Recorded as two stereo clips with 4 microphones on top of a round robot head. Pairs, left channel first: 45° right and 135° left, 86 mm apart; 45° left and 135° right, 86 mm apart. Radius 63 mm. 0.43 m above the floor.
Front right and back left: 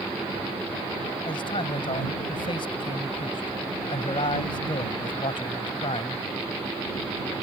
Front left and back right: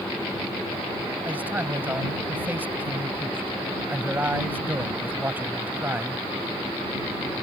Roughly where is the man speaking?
Ahead right.